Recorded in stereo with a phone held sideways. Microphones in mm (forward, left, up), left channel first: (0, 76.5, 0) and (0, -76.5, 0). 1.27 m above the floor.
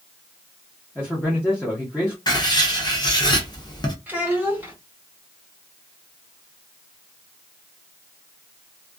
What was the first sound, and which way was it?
A man speaking, 10° left (ahead or behind).